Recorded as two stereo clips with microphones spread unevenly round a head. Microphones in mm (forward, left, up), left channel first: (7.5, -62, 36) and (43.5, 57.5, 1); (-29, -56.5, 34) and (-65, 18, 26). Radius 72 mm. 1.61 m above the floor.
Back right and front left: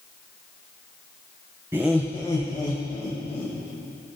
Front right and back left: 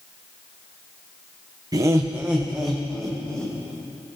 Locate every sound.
1.7 s laughter: 160° left, 0.8 m; by 3.5 s 145° right, 2 m